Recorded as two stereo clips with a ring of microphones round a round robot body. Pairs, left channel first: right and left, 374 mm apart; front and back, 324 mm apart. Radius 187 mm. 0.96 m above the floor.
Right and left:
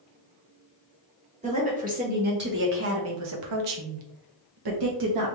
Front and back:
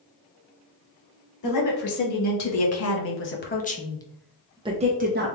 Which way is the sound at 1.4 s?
20° left.